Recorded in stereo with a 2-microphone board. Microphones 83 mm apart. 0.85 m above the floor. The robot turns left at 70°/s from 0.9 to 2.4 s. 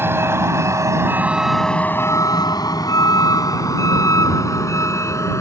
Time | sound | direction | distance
0.0 | a vehicle | 30° right (ahead or behind) | ?